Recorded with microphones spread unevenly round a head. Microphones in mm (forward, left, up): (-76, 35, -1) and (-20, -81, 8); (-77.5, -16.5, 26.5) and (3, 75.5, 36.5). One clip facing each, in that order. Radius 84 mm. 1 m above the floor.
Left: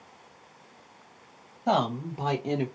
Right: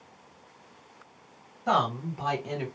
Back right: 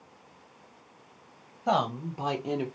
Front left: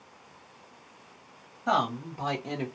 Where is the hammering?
No hammering in this recording.